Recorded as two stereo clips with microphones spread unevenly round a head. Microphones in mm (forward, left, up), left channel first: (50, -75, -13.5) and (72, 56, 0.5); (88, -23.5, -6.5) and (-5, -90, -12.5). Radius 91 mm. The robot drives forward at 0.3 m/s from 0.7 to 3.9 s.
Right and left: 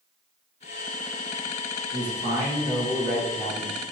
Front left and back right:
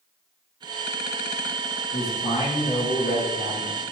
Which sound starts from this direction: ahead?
A man speaking, at 1.9 s.